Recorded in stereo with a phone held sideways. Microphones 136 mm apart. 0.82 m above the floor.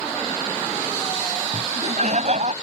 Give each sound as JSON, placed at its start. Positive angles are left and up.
{"t": 1.5, "sound": "laughter", "side_deg": -55}